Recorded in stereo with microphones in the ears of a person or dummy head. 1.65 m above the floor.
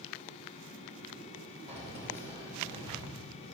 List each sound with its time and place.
1.7 s keys jangling: 40° right (ahead or behind), 6 m; by 3.2 s 35° right (ahead or behind), 5 m